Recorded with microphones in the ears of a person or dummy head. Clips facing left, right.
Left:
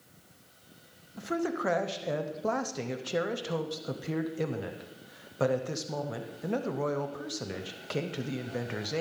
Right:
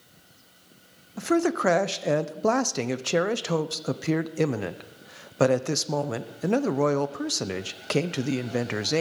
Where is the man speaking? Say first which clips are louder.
Right 8 dB; 70° right (ahead or behind), 0.6 m.